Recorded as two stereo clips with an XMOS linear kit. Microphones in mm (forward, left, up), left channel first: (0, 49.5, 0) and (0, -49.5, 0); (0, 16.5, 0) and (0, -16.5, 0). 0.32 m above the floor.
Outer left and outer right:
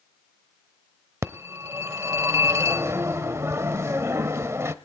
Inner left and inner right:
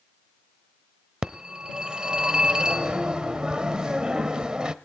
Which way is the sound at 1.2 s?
30° right (ahead or behind).